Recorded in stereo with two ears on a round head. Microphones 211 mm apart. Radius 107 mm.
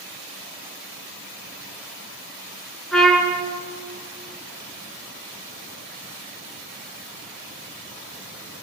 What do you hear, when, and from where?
2.9 s a trumpet: centre (ahead or behind), 3 m